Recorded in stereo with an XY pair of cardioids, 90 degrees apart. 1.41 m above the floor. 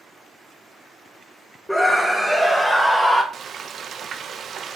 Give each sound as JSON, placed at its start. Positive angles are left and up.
{"t": 1.7, "sound": "a scream", "azimuth_deg": 5, "distance_m": 1.9}
{"t": 3.3, "sound": "frying", "azimuth_deg": -60, "distance_m": 1.1}